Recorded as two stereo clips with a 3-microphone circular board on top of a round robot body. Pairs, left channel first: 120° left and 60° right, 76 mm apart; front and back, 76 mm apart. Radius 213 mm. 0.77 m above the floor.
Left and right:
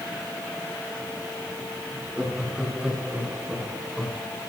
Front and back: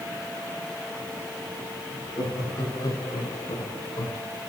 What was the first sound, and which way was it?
Laughter, 20° left.